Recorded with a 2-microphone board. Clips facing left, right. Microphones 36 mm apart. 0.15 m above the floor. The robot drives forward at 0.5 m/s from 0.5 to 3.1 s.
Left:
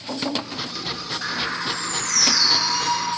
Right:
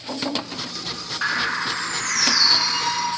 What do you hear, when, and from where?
1.2 s a bird: 30° right (ahead or behind), 1.2 m; by 3.1 s 20° right (ahead or behind), 1.8 m